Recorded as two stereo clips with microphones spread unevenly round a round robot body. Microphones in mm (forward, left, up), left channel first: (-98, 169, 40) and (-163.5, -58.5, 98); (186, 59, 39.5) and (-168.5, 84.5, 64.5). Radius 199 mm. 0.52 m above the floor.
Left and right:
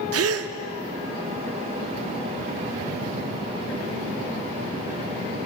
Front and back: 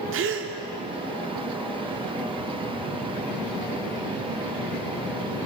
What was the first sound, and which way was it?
A gasp, 130° right.